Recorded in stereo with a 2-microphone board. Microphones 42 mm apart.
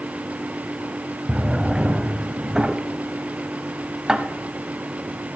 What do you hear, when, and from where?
1.3 s a drawer: 15° right (ahead or behind), 0.6 m